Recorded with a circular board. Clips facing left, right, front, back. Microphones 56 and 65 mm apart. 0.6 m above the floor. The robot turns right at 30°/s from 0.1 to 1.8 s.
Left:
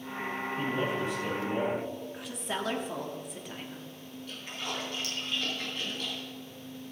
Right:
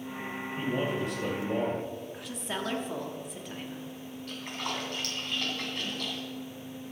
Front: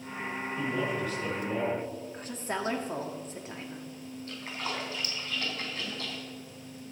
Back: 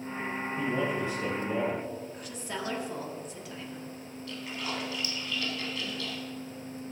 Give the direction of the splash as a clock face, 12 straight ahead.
2 o'clock.